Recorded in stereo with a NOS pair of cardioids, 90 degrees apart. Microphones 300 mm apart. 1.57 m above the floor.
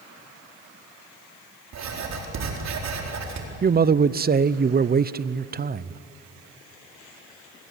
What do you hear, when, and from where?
1.7 s writing: 60° right, 4 m
3.6 s a man speaking: 30° right, 0.7 m